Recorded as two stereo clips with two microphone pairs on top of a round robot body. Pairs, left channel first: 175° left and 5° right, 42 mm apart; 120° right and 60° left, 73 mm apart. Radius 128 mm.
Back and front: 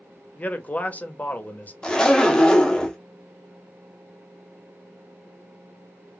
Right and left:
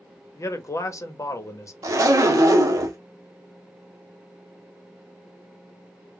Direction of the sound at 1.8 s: 100° left.